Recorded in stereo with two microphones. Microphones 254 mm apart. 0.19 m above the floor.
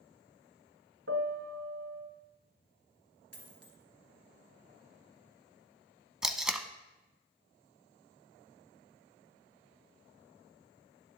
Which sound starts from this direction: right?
A piano, at 1.1 s.